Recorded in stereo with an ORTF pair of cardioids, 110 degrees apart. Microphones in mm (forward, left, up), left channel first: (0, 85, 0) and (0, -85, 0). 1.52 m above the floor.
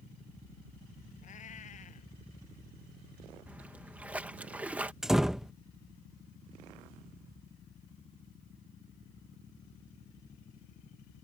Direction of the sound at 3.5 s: 10° right.